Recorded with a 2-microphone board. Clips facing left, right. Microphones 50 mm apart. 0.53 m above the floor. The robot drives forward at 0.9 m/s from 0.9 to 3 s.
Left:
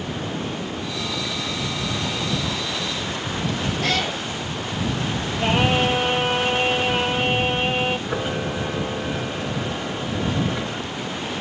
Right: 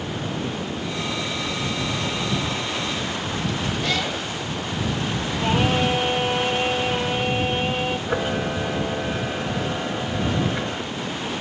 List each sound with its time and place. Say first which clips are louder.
3.8 s a cat meowing: left 2 dB; 70° left (ahead or behind), 4.5 m
5.4 s singing: left 2 dB; 65° left (ahead or behind), 4.5 m
8.1 s a camera shutter: right 1 dB; 15° right (ahead or behind), 1.0 m